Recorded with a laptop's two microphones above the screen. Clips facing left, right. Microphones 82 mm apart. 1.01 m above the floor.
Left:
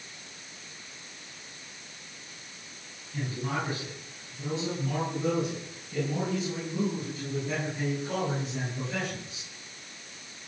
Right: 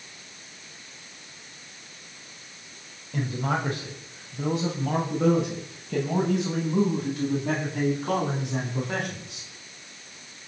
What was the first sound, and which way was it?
A man speaking, 85° right.